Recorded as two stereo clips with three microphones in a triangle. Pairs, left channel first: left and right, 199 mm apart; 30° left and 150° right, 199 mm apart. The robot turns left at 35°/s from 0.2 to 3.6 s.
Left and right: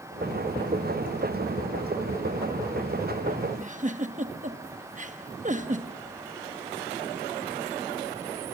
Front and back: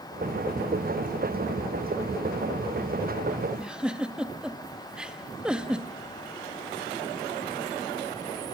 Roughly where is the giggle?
Ahead right.